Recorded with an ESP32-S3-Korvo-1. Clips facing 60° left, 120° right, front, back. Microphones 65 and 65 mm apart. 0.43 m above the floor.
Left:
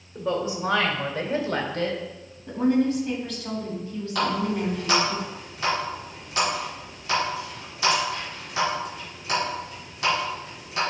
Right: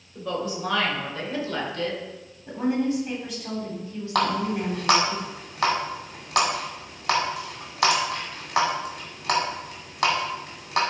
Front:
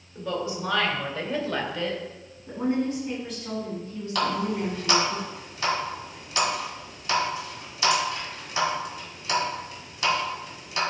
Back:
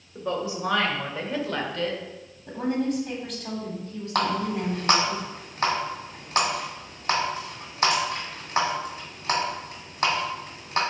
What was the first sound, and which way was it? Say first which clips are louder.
A woman speaking: left 3 dB, back 1 dB; 120° left.